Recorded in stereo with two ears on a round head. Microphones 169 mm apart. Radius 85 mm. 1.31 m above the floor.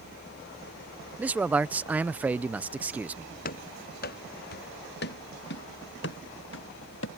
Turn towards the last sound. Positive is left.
turn(degrees=70)  # may be behind; listen again after turning